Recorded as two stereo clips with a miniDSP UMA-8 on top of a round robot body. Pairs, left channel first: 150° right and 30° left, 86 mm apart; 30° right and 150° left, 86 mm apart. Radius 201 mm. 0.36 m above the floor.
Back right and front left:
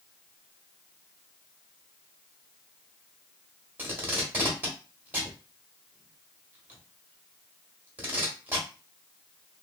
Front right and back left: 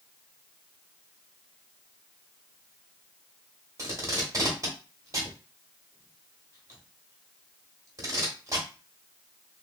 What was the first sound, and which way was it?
Tape being pulled, 100° left.